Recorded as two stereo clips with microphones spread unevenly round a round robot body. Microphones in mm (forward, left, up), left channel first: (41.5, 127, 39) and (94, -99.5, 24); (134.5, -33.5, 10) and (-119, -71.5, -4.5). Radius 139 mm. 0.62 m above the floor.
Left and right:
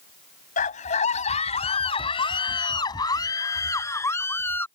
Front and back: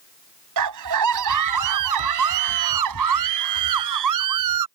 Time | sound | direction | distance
0.6 | a scream | 165° left | ?